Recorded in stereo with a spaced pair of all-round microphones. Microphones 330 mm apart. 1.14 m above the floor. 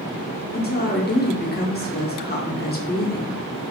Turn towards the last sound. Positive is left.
turn(degrees=30)  # may be behind; listen again after turning